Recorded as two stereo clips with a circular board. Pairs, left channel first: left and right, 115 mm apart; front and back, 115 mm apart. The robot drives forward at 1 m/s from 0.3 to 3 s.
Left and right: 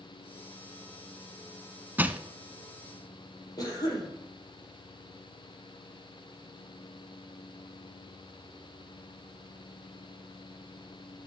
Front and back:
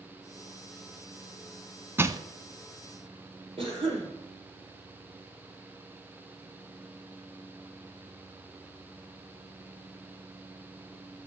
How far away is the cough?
About 5 m.